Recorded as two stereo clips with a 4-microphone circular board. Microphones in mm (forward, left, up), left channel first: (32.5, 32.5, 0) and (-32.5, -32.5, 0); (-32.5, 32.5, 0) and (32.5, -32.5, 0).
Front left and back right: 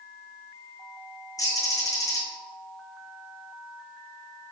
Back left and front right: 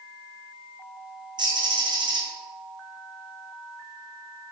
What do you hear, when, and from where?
1.4 s a bird: 5° right, 1.8 m